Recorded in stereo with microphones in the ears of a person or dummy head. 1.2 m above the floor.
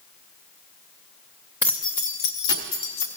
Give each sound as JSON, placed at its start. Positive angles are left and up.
{"t": 1.6, "sound": "keys jangling", "side_deg": 5, "distance_m": 0.7}